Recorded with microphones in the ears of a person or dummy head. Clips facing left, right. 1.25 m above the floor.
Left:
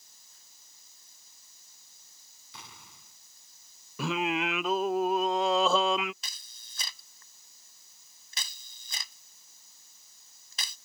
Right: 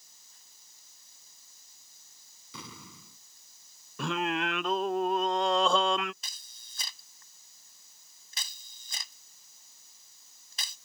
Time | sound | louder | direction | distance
2.5 | an explosion | right 6 dB | 75° right (ahead or behind) | ?
4.0 | singing | left 1 dB | centre (ahead or behind) | ?
6.2 | a camera shutter | left 3 dB | 60° left (ahead or behind) | ?